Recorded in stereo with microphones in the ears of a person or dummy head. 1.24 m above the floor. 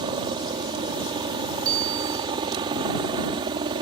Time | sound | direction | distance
0.0 | a helicopter | 25° right (ahead or behind) | ?
1.6 | a bicycle bell | 20° right (ahead or behind) | ?